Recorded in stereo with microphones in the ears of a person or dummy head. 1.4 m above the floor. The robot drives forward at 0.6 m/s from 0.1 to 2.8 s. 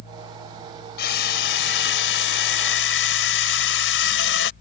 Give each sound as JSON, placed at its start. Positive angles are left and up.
{"t": 1.0, "sound": "a drill", "side_deg": 65}